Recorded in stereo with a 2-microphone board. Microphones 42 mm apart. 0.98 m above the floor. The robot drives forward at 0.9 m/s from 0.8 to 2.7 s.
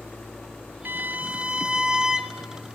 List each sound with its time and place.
0.8 s a violin: 55° right (ahead or behind), 0.5 m; by 2.4 s 15° right (ahead or behind), 1.6 m